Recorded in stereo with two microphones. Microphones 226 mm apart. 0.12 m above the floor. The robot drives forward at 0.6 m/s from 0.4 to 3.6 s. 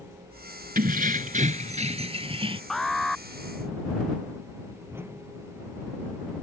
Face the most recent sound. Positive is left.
turn(degrees=-10)  # may be behind; listen again after turning